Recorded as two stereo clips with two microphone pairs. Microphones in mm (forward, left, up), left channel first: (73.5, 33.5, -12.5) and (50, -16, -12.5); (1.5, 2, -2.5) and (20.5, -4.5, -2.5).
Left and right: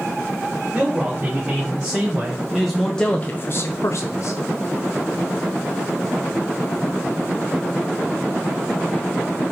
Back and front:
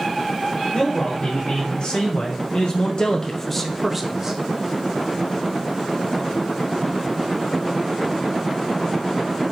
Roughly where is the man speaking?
Behind.